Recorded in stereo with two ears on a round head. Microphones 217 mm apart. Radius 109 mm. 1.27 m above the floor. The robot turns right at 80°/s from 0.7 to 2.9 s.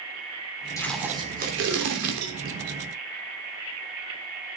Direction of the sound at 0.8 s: 165° left.